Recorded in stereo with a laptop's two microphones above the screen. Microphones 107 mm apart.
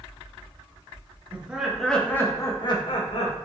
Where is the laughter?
15° right (ahead or behind), 1.4 m; by 3.4 s 60° left (ahead or behind), 1.6 m.